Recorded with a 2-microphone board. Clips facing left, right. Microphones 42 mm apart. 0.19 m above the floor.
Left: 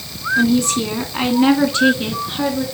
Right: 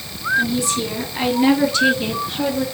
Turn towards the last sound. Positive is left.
turn(degrees=20)  # may be behind; listen again after turning